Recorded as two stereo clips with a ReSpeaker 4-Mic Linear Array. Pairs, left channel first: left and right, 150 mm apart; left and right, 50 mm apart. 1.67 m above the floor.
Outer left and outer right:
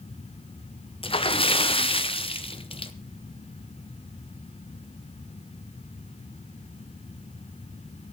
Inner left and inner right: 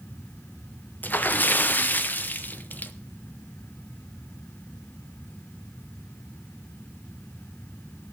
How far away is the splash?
About 0.8 m.